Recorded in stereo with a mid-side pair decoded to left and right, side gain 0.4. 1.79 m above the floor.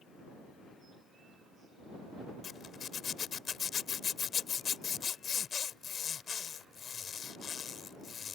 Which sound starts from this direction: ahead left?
A zipper, at 2.4 s.